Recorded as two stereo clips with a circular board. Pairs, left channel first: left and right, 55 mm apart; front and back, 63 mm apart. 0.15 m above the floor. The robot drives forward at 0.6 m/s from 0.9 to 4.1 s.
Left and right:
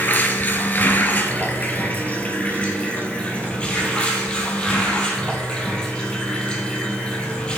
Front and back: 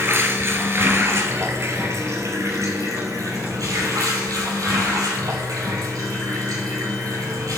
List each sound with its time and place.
0.0 s running water: 140° left, 2 m; by 7.6 s 160° left, 3.5 m